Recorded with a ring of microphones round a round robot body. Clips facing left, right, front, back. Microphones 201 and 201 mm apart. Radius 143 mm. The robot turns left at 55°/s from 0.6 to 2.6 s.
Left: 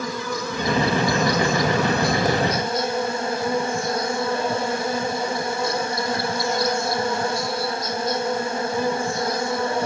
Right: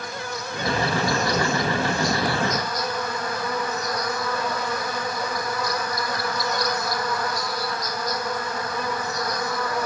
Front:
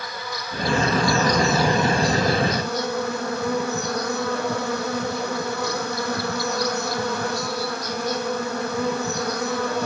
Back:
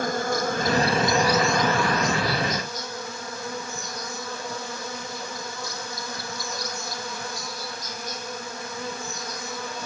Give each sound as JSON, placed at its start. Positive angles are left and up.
{"t": 0.0, "sound": "an insect", "azimuth_deg": 135}